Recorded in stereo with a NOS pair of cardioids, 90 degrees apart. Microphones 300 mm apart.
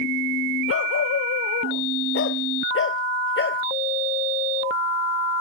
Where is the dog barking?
50° left; by 3.6 s 40° left.